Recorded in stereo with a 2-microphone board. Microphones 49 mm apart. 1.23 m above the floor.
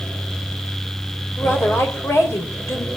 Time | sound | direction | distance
1.4 | a woman speaking | 70° left (ahead or behind) | 5 m